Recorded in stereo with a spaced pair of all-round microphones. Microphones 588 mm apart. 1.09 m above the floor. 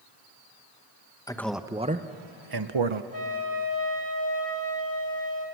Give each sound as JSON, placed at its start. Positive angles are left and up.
{"t": 1.3, "sound": "a man speaking", "side_deg": 5, "distance_m": 1.1}
{"t": 3.1, "sound": "a flute", "side_deg": 35, "distance_m": 3.0}